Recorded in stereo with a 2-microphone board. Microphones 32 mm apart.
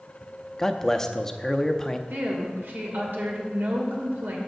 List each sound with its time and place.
0.6 s a man speaking: 15° left (ahead or behind), 0.5 m
2.1 s a woman speaking: 70° right (ahead or behind), 2 m